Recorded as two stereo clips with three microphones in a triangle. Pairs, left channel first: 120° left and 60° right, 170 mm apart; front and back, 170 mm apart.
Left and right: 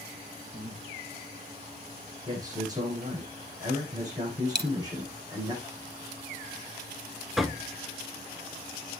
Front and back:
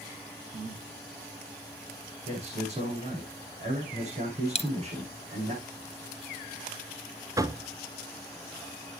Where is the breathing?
130° right, 8 m.